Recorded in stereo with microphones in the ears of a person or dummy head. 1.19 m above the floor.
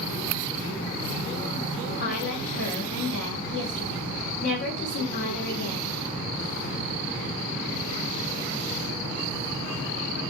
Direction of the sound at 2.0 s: 55° left (ahead or behind).